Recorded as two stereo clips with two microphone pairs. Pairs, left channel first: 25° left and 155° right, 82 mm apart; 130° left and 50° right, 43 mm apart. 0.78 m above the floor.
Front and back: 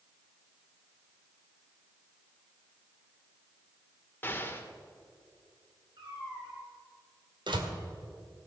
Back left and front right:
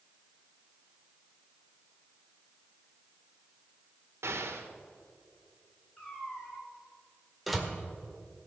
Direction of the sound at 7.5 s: 140° right.